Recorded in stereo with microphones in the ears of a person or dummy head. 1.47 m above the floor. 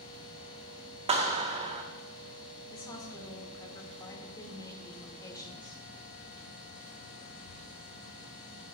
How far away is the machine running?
About 4 m.